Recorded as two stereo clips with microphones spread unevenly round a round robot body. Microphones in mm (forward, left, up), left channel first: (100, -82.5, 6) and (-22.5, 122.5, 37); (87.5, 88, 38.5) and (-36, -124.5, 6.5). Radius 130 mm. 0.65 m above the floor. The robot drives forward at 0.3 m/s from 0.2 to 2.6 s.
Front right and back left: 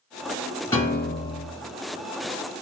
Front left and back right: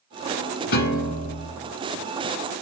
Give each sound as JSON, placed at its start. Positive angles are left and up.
{"t": 0.7, "sound": "a piano", "azimuth_deg": 25, "distance_m": 1.4}